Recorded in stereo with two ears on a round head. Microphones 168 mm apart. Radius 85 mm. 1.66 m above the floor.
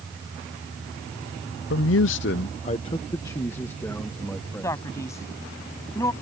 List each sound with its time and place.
1.7 s a man speaking: 60° left (ahead or behind); by 5.3 s 5° left (ahead or behind)
4.6 s a man speaking: 15° left (ahead or behind)